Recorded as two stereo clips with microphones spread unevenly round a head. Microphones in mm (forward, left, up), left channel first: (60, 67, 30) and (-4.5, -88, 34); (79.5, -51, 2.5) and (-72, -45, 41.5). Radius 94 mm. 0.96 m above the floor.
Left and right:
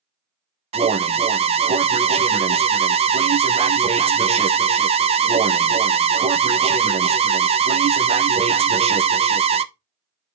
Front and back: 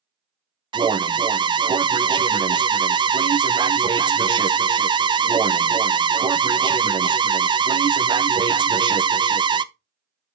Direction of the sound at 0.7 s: 120° right.